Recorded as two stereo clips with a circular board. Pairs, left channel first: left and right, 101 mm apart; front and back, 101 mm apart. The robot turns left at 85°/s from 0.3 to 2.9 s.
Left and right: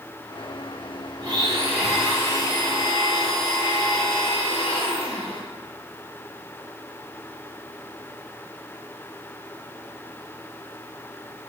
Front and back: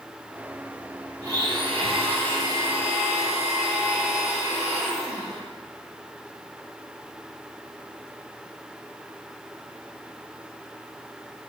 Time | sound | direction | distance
1.2 | a blender | 120° right | 2.5 m